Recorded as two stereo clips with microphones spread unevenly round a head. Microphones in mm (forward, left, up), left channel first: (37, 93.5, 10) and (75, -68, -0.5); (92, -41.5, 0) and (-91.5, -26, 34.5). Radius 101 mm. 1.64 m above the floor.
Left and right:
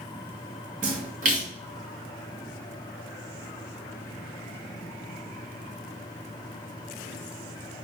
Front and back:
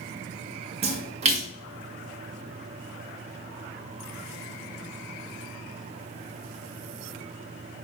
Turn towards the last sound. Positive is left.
turn(degrees=-135)